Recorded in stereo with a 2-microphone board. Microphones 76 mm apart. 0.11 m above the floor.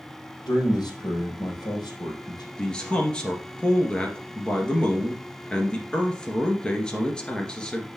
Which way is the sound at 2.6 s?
15° left (ahead or behind).